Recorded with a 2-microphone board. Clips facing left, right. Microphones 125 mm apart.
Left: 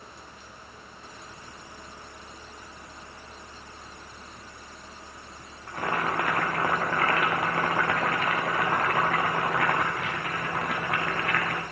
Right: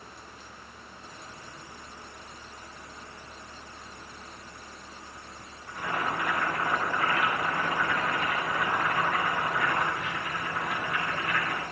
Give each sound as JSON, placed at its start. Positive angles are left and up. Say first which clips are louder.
{"t": 5.7, "sound": "boiling", "louder": "left 3 dB", "side_deg": 85, "distance_m": 3.0}